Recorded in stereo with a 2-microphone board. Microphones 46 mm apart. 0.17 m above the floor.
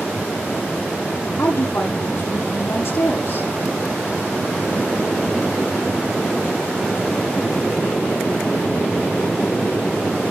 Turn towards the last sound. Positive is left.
turn(degrees=75)  # may be behind; listen again after turning